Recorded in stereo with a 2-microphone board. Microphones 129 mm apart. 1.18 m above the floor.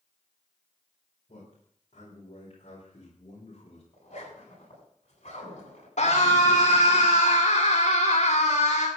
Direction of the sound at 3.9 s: 55° left (ahead or behind).